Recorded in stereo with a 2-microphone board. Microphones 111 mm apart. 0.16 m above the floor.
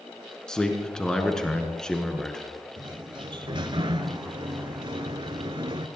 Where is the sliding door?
45° right (ahead or behind), 0.8 m.